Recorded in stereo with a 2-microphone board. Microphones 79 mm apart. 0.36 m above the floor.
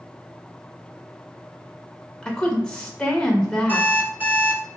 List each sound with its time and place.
2.2 s a woman speaking: 10° left (ahead or behind), 0.8 m
3.7 s an alarm clock: 20° right (ahead or behind), 1.7 m